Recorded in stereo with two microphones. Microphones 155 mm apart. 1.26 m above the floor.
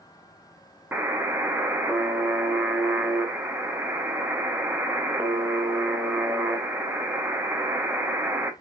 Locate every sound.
0.9 s a buzzer: 15° right (ahead or behind), 0.6 m